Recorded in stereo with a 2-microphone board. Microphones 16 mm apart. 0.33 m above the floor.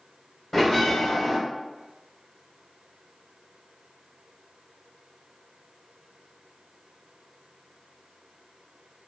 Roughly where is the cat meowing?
No cat meowing in this recording.